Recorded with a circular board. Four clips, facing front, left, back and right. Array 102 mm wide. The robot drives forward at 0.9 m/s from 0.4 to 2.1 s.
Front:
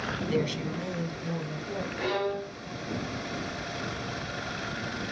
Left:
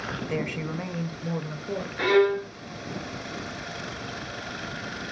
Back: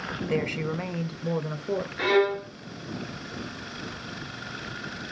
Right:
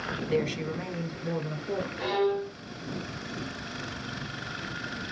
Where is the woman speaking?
150° left, 1.3 m; by 1.9 s 170° left, 2 m.